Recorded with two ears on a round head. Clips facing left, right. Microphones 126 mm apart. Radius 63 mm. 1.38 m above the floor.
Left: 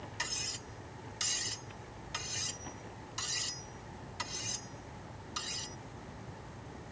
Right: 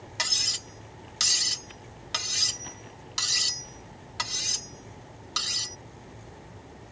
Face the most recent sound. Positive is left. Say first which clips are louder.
# right 5 dB
turn(degrees=-70)  # may be behind; listen again after turning